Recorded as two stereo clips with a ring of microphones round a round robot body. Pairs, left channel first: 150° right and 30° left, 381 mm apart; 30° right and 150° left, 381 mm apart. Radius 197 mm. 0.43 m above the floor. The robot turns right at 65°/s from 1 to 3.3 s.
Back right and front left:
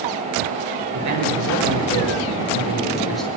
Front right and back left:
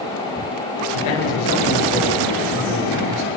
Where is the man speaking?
20° right, 8 m; by 3.3 s 125° left, 8 m.